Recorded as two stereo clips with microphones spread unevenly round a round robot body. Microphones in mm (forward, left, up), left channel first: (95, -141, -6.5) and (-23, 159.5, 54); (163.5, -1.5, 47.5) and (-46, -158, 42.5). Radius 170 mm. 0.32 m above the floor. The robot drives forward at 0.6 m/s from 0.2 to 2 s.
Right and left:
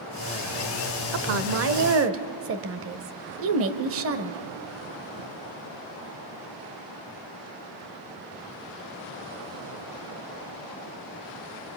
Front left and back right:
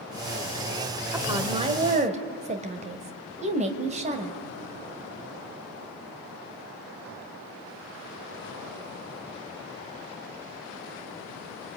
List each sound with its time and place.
1.1 s a woman speaking: 145° left, 1.1 m; by 4.4 s 160° left, 1.5 m